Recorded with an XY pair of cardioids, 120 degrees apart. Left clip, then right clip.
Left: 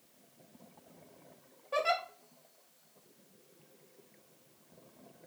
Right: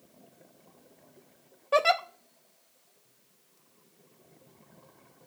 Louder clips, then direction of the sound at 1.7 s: Right 7 dB; 55° right.